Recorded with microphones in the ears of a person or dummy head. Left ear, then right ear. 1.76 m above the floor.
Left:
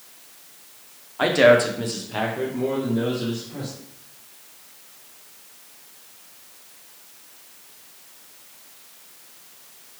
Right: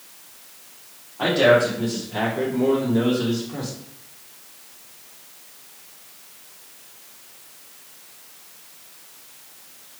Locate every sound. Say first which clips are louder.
1.2 s a man speaking: left 1 dB; 60° left (ahead or behind), 0.8 m; by 3.7 s 50° right (ahead or behind), 1.0 m